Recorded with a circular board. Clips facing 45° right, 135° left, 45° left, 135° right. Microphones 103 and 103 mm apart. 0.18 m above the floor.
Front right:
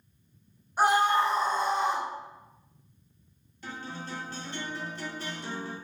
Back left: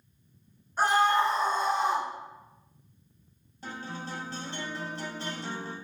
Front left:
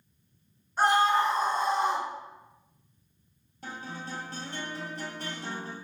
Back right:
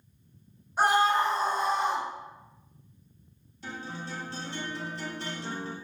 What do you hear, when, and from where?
0.8 s a scream: 90° right, 1.3 m; by 2.1 s 55° left, 1.7 m
3.6 s a guitar: 80° left, 1.5 m